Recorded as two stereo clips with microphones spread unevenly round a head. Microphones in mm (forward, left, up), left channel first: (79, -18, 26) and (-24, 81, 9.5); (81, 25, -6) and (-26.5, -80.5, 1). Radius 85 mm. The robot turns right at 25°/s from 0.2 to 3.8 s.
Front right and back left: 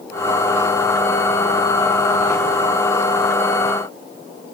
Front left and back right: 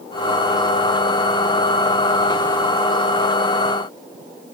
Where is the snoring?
No snoring in this recording.